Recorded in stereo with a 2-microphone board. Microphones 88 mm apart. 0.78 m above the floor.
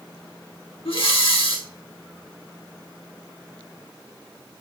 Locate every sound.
0.8 s breathing: 80° left, 1.3 m